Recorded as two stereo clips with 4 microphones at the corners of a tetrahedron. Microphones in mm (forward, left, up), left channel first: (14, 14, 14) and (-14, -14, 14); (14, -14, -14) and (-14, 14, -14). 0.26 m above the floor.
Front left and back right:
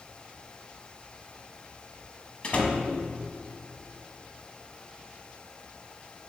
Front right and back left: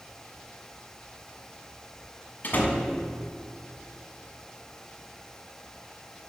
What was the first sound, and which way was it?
A door slam, 15° right.